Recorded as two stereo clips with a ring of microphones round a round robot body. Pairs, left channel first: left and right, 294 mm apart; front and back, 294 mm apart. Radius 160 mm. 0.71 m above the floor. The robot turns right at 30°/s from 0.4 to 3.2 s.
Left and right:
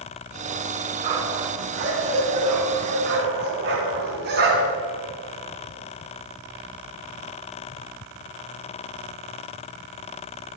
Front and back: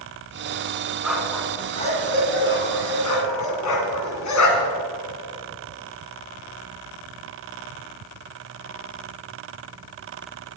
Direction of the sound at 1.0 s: 95° right.